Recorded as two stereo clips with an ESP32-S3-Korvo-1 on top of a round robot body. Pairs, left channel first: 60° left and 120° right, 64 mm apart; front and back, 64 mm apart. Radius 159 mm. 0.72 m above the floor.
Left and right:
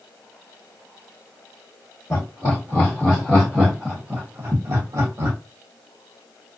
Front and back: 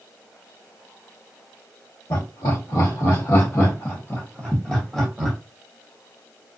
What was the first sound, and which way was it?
Laughter, straight ahead.